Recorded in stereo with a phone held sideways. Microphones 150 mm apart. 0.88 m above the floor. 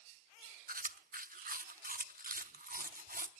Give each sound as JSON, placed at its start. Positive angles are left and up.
{"t": 0.7, "sound": "chewing", "side_deg": -70, "distance_m": 0.7}